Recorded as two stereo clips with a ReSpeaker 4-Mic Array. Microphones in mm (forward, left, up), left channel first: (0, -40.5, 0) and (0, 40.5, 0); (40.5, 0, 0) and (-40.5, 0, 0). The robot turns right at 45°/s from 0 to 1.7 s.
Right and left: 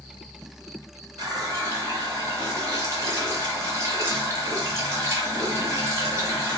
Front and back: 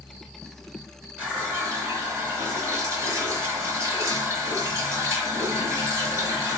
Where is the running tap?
110° left, 1.1 m; by 6.6 s 135° left, 1.1 m.